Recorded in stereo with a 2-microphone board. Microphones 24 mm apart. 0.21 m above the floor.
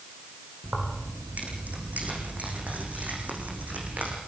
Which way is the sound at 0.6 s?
80° right.